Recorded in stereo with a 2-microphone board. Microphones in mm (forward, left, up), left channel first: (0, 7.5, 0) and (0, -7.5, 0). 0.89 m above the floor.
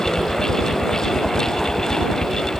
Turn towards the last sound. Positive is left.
turn(degrees=70)  # may be behind; listen again after turning